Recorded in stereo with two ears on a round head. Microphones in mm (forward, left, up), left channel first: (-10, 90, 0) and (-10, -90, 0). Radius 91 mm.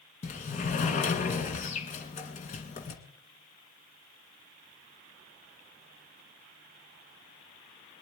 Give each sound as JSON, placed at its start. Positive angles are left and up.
{"t": 0.2, "sound": "a sliding door", "side_deg": 40, "distance_m": 1.8}